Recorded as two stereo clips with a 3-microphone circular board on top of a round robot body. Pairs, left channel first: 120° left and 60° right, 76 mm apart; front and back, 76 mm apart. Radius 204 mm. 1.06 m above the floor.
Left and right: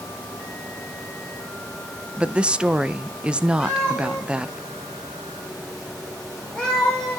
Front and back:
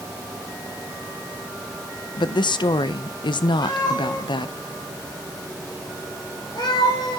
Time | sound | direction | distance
2.2 | a woman speaking | 15° left | 0.5 m
3.6 | a cat meowing | 40° left | 6.5 m